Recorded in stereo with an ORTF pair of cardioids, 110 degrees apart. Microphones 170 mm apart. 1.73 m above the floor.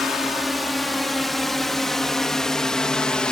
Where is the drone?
Straight ahead; by 3.3 s 5° left.